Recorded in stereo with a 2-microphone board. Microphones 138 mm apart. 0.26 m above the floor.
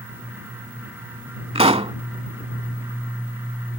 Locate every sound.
1.6 s a pop: 50° right (ahead or behind)